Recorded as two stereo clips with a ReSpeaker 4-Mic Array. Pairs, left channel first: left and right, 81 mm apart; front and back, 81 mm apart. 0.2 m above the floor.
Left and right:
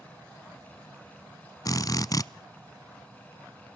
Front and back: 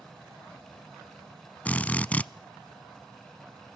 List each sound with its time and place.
1.6 s a drill: 70° left, 0.5 m